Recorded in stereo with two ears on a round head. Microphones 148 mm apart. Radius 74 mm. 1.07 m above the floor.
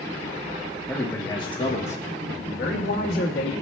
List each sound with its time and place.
0.9 s a man speaking: 5° left (ahead or behind), 1.0 m; by 3.5 s 80° left, 1.7 m